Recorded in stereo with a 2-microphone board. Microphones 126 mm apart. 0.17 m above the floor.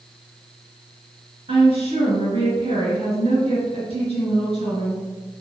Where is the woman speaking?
50° right (ahead or behind), 1.9 m.